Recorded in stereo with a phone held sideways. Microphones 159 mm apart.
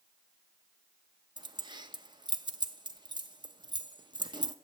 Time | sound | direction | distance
1.4 | keys jangling | 30° right (ahead or behind) | 0.8 m